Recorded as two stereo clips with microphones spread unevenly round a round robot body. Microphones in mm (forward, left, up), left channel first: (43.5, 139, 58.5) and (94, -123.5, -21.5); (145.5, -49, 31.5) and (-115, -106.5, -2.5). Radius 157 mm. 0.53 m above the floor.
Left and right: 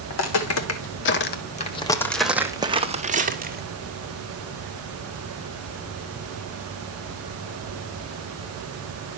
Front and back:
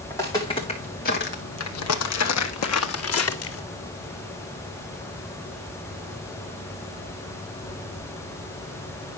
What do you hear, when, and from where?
0.1 s footsteps: 95° left, 1.8 m; by 3.7 s 20° right, 1.8 m